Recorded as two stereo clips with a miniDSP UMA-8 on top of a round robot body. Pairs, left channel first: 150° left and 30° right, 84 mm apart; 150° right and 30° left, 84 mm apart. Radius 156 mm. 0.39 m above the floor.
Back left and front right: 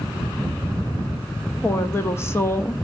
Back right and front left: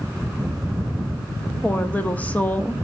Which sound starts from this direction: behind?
A woman speaking, at 1.6 s.